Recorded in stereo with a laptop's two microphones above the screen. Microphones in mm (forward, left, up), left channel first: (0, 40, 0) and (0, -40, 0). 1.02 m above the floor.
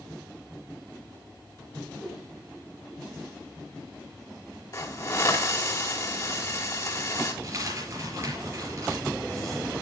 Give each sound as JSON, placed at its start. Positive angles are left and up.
{"t": 2.0, "sound": "a whoosh", "side_deg": 5, "distance_m": 3.0}
{"t": 4.7, "sound": "a hiss", "side_deg": 45, "distance_m": 3.5}
{"t": 7.4, "sound": "a dropped coin", "side_deg": -40, "distance_m": 4.5}